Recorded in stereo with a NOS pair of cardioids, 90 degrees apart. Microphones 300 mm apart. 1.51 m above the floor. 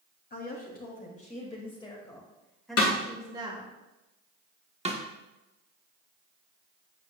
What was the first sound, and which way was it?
A woman speaking, 35° left.